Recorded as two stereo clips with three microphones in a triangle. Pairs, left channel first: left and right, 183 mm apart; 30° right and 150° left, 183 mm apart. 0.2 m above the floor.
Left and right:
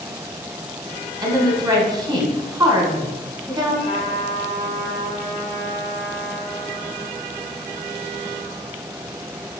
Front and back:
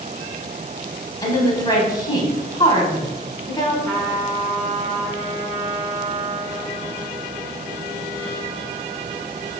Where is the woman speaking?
60° right, 1.0 m.